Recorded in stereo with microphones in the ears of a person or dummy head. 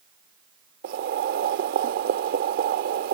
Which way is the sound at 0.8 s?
65° right (ahead or behind).